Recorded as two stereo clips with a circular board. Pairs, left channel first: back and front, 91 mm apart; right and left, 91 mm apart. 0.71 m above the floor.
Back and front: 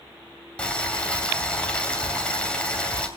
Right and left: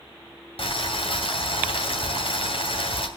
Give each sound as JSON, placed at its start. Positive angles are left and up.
{"t": 0.6, "sound": "boiling", "azimuth_deg": -100, "distance_m": 2.5}